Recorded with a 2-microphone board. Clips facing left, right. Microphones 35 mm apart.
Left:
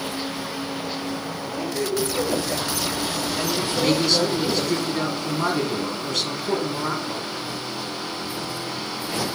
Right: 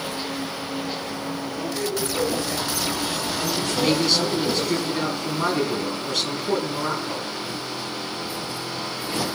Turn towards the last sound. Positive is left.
turn(degrees=0)  # may be behind; listen again after turning